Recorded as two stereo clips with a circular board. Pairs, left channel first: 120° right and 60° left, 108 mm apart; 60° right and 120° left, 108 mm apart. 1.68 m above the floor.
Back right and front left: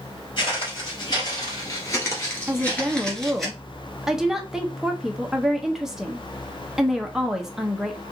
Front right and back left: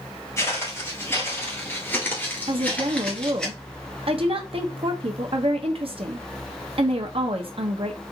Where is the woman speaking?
145° left, 0.8 m.